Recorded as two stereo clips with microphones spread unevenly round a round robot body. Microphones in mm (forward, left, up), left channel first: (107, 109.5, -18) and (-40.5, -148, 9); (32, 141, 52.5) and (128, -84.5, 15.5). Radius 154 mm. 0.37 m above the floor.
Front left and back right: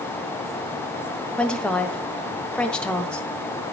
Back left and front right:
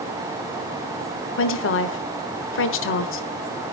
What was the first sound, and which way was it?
A woman speaking, 140° left.